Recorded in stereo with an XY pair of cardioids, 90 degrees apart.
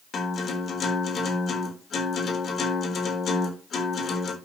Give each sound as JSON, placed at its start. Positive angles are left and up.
{"t": 0.1, "sound": "a guitar", "azimuth_deg": 55, "distance_m": 3.5}